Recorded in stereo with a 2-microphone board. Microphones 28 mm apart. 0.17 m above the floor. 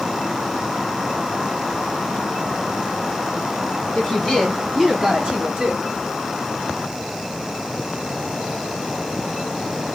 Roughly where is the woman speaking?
Left.